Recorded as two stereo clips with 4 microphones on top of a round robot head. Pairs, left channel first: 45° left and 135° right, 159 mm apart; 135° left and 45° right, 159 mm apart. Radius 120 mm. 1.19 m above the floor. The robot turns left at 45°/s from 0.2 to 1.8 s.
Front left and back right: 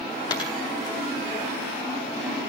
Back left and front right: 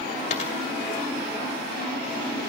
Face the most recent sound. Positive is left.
turn(degrees=30)